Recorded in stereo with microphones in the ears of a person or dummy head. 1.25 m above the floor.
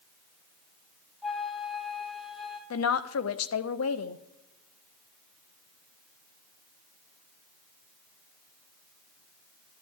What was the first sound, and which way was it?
A flute, 5° left (ahead or behind).